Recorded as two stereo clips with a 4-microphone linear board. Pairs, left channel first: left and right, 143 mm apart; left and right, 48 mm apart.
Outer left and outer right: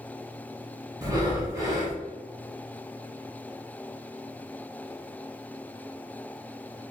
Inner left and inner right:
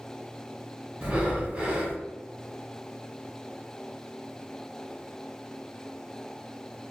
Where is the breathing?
25° right (ahead or behind), 1.0 m.